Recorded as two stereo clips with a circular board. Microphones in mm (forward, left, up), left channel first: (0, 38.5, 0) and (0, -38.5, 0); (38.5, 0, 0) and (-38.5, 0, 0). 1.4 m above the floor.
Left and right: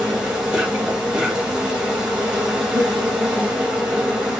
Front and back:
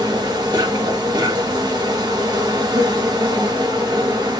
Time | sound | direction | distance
0.0 | an insect | 165° right | 4 m